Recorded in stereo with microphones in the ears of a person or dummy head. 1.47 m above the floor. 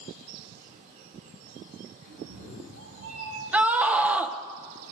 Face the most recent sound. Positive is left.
turn(degrees=-10)  # may be behind; listen again after turning